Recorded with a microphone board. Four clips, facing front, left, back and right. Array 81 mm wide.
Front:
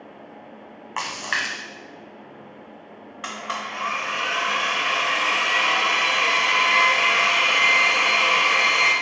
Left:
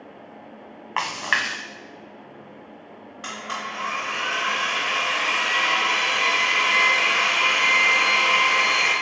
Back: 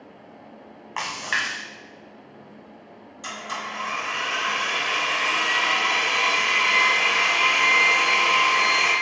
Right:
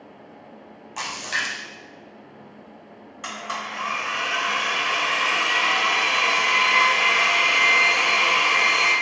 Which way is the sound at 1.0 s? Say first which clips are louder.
Left 4 dB, even; 85° left.